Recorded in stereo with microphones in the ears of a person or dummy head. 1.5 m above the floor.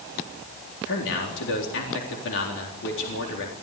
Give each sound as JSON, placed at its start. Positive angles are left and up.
{"t": 0.8, "sound": "a man speaking", "side_deg": 75, "distance_m": 3.5}